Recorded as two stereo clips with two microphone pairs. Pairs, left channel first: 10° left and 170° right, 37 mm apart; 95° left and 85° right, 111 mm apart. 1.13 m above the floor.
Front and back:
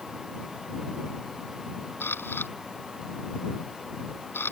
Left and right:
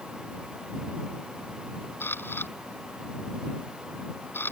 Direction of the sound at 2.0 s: 25° left.